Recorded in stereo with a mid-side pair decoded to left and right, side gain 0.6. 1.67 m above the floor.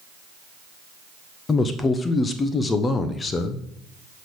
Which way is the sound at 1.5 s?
30° left.